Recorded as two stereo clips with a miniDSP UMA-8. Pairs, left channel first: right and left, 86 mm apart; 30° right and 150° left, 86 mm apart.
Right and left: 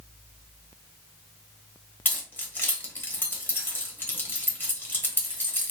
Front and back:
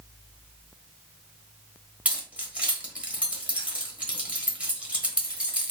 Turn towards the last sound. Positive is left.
turn(degrees=-145)